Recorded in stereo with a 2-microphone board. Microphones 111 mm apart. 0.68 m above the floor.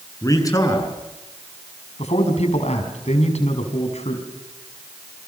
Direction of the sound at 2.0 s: 75° left (ahead or behind).